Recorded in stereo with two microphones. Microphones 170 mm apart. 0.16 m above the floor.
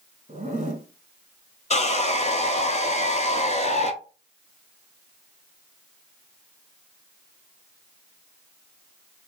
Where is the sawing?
40° left (ahead or behind), 0.5 m.